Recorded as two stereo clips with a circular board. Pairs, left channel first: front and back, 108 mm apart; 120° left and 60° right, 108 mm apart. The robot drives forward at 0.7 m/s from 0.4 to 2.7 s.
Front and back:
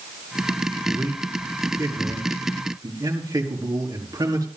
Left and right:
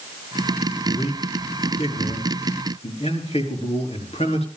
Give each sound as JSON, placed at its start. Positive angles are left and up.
{"t": 0.9, "sound": "a man speaking", "azimuth_deg": 110, "distance_m": 4.0}